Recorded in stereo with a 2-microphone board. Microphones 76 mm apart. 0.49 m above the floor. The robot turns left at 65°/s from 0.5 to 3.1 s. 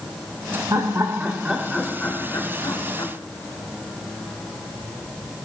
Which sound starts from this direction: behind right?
Laughter, at 0.7 s.